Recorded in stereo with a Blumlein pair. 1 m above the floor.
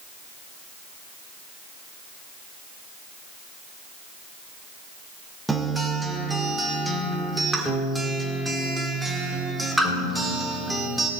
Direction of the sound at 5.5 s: 5° right.